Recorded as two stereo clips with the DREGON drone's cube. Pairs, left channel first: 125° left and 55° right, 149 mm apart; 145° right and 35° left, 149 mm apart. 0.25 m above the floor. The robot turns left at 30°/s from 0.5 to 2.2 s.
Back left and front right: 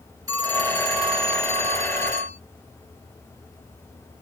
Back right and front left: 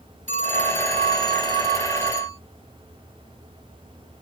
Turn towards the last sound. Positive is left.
turn(degrees=-45)